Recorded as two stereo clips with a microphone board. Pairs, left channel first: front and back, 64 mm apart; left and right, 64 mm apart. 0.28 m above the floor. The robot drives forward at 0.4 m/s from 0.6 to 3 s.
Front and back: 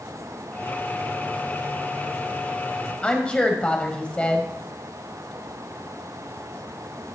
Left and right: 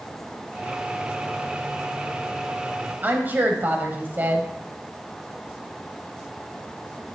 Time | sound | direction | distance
3.0 | a woman speaking | 60° right | 1.3 m